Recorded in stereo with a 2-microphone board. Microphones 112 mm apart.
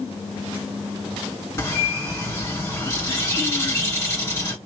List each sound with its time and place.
1.6 s a bird: 25° left (ahead or behind), 2.0 m